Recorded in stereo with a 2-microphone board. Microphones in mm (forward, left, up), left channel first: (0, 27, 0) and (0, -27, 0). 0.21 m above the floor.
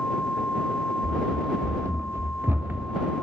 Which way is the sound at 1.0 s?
75° right (ahead or behind).